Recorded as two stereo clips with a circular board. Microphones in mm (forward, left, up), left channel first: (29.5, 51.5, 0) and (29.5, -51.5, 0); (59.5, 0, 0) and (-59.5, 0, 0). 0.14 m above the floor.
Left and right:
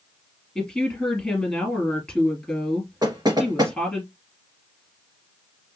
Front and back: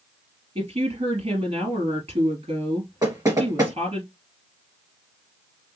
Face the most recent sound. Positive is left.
turn(degrees=-125)